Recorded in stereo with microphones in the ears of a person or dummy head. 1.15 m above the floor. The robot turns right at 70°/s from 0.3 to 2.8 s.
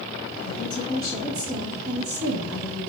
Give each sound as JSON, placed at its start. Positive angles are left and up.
{"t": 0.5, "sound": "a woman speaking", "azimuth_deg": 120, "distance_m": 1.9}